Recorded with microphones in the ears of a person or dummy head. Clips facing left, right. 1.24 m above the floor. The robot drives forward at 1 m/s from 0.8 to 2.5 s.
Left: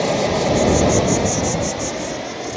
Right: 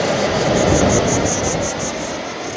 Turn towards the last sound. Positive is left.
turn(degrees=0)  # may be behind; listen again after turning